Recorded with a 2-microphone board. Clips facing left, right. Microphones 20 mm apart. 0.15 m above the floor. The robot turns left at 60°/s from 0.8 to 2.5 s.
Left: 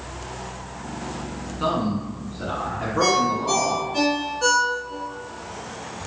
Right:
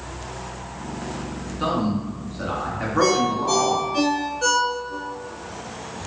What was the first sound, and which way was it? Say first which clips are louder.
A man speaking: even; 10° right.